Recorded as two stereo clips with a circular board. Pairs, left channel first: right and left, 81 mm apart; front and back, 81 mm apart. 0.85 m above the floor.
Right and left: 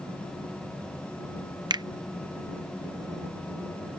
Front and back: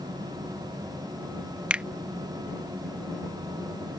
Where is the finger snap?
105° left.